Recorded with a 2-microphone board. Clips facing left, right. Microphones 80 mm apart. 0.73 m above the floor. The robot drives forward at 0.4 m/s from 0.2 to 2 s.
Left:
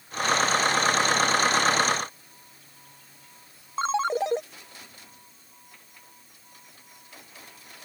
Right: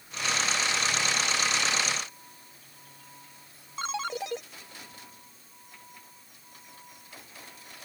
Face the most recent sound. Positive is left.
turn(degrees=35)  # may be behind; listen again after turning